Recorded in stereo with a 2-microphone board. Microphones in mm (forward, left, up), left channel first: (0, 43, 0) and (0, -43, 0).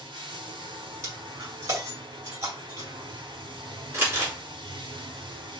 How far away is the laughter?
I don't hear laughter.